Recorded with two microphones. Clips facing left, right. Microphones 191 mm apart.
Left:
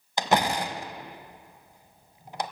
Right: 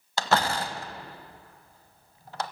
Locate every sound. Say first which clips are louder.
0.2 s a door slam: left 1 dB; 15° left (ahead or behind), 1.2 m